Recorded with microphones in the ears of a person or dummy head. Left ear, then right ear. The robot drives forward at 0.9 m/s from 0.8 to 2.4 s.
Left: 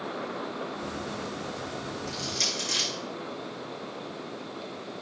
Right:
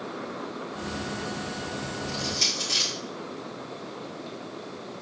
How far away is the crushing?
About 4 m.